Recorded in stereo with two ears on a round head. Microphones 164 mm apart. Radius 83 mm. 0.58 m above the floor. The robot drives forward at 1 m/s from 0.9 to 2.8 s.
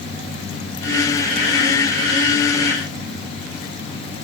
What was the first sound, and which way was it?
Only background noise.